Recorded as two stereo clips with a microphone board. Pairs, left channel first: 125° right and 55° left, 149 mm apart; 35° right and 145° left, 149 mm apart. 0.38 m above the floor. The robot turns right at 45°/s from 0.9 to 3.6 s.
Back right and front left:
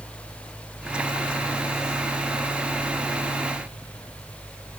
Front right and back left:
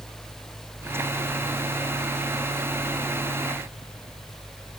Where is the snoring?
No snoring in this recording.